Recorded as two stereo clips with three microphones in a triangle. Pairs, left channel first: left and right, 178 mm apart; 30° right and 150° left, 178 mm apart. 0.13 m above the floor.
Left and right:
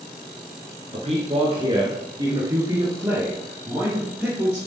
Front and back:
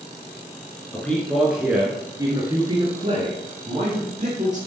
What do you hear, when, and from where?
0.9 s a man speaking: 105° right, 1.9 m; by 4.6 s 175° right, 3.5 m